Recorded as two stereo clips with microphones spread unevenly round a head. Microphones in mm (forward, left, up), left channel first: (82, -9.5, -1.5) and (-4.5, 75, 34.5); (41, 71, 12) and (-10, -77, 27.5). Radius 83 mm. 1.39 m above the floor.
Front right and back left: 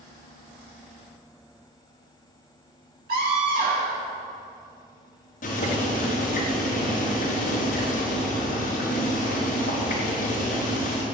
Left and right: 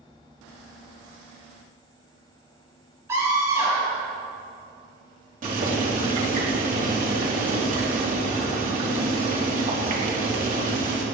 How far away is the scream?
About 6.5 m.